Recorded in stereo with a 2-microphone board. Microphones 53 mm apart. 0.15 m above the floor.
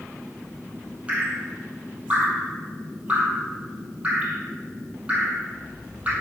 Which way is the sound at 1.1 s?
25° right (ahead or behind).